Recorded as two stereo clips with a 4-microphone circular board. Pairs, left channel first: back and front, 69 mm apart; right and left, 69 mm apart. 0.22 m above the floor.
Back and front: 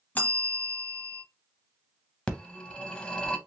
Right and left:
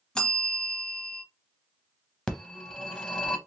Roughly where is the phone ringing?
Behind right.